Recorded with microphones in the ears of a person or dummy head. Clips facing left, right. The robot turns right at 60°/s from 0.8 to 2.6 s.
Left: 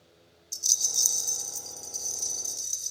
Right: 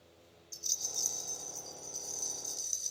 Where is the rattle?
80° left, 1.0 m; by 2.9 s 170° right, 1.0 m.